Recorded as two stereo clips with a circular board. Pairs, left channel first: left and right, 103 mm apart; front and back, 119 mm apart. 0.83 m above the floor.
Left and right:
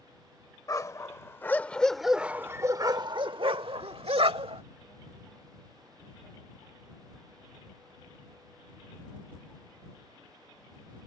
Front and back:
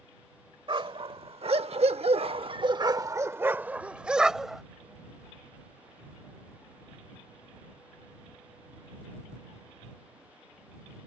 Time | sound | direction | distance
0.7 | a dog barking | 140° left | ?